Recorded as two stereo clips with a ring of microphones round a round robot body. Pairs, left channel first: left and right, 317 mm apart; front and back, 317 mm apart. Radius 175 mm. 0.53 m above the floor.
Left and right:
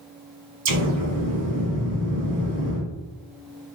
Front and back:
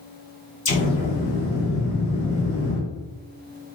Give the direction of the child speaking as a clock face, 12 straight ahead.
I don't hear a child speaking.